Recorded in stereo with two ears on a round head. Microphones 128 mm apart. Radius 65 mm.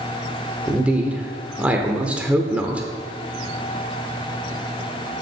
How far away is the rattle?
I don't hear a rattle.